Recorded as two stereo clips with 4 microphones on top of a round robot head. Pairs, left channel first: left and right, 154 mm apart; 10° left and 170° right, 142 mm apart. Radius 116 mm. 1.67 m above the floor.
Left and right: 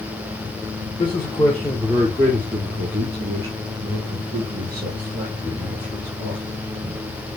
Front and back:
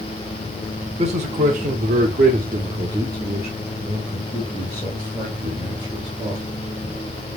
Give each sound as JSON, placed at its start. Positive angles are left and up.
{"t": 1.0, "sound": "a man speaking", "azimuth_deg": 155, "distance_m": 0.9}